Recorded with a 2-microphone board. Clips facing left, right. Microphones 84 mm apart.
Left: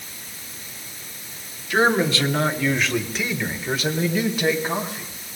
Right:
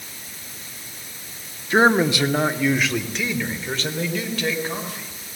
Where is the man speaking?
30° right (ahead or behind), 2 m; by 5.1 s 20° left (ahead or behind), 4.5 m.